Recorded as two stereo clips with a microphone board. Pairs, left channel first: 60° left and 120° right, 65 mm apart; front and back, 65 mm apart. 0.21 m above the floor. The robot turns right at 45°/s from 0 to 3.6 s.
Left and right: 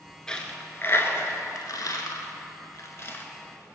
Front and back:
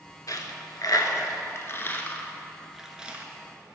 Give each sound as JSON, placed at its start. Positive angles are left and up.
{"t": 0.3, "sound": "a dropped coin", "azimuth_deg": -20, "distance_m": 0.6}